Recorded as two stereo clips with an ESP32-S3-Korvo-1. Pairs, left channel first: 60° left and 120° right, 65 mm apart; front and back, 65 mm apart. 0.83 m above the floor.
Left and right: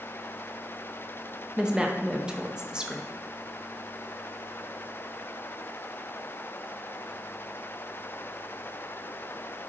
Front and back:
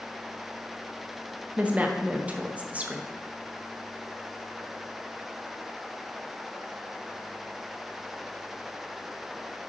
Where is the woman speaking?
175° right, 0.8 m.